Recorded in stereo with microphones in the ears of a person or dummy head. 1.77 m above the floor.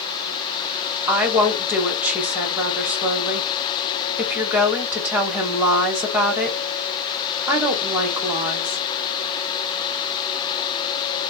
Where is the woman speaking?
10° right (ahead or behind), 1.6 m.